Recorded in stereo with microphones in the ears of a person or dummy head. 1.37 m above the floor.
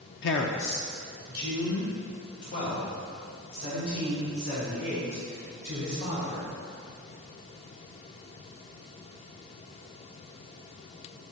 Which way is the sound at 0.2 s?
60° left (ahead or behind).